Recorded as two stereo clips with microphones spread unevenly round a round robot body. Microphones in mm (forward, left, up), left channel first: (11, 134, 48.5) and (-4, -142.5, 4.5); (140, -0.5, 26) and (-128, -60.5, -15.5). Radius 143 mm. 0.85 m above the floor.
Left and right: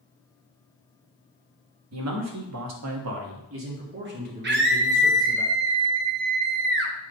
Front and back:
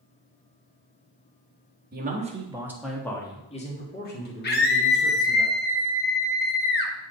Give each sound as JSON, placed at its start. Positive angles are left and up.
{"t": 1.9, "sound": "a man speaking", "azimuth_deg": -120, "distance_m": 1.5}
{"t": 4.4, "sound": "a scream", "azimuth_deg": -45, "distance_m": 1.6}